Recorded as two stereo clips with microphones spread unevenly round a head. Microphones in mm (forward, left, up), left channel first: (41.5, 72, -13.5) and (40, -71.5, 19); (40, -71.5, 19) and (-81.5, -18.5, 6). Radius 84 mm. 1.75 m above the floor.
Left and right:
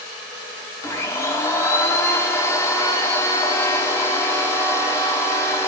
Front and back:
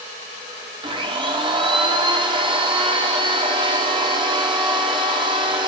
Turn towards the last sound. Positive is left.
turn(degrees=170)